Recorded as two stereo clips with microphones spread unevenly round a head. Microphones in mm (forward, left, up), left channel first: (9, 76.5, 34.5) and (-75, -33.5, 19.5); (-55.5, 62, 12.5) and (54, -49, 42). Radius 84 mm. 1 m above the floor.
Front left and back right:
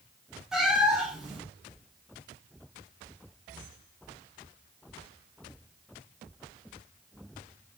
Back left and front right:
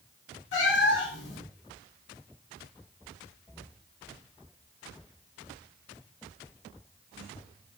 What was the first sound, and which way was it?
A cat meowing, 140° left.